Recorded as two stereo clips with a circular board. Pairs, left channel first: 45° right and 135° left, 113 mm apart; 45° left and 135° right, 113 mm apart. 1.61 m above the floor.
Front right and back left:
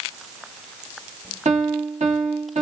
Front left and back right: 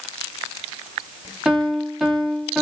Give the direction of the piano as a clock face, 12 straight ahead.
7 o'clock.